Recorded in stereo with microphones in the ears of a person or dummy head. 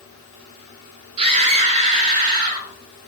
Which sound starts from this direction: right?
A scream, at 1.2 s.